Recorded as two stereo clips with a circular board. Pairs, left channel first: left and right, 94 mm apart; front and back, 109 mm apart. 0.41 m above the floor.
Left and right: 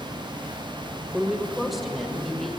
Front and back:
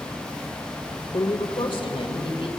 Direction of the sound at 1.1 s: 5° right.